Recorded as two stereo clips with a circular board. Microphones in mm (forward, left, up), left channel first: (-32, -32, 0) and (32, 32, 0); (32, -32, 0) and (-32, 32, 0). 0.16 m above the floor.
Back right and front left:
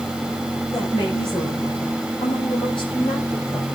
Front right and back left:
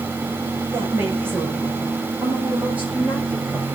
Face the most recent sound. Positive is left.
turn(degrees=-145)